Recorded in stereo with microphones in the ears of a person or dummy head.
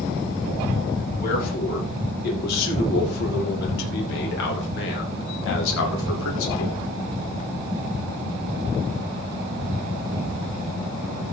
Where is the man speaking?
55° left (ahead or behind), 5 m; by 6.8 s 85° left, 2 m.